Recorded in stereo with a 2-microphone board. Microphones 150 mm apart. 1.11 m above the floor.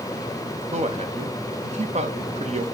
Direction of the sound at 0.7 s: 50° right (ahead or behind).